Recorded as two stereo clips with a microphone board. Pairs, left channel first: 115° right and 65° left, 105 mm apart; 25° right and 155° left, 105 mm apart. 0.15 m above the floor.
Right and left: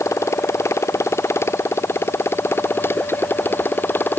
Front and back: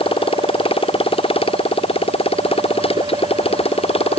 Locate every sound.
0.0 s a motorcycle: 50° right; by 4.2 s 40° right